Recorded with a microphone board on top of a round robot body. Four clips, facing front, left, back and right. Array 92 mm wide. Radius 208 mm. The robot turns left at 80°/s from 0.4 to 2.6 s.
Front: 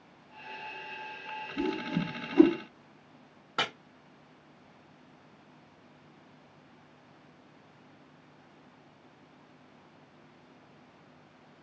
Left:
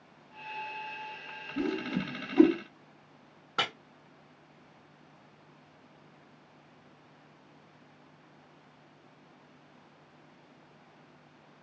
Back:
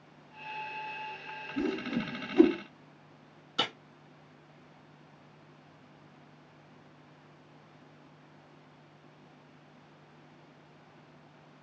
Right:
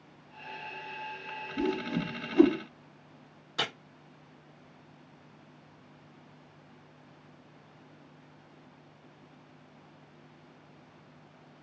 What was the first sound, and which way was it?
A whoosh, 115° left.